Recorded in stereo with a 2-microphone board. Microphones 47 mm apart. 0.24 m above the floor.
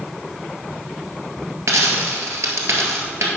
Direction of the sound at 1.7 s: 75° right (ahead or behind).